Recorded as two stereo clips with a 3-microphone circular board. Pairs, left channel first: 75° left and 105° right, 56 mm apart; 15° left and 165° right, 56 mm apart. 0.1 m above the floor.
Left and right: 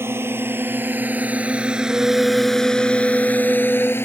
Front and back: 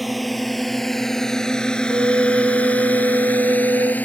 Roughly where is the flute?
Behind.